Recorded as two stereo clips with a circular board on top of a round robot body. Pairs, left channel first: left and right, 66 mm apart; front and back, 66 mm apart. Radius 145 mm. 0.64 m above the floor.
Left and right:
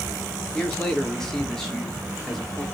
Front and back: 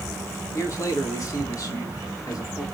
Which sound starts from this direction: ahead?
A man speaking, at 0.5 s.